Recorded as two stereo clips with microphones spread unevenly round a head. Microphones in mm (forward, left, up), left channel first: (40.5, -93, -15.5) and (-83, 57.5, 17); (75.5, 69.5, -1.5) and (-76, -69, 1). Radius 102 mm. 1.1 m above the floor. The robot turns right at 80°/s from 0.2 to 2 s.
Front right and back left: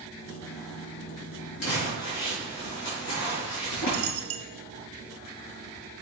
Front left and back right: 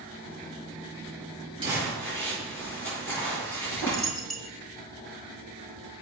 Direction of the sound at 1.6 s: 70° right.